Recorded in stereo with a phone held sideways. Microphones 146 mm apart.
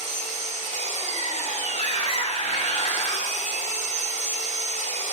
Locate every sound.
0.0 s an engine running: 55° left (ahead or behind), 1.5 m
1.7 s a scream: 40° left (ahead or behind), 0.7 m